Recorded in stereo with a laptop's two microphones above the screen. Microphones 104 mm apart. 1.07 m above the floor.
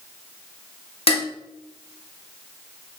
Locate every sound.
1.1 s dishes clattering: 70° left (ahead or behind), 1.7 m